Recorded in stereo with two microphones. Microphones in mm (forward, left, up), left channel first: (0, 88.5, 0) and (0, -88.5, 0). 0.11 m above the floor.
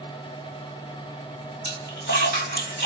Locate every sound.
1.6 s a splash: 65° left (ahead or behind), 3.5 m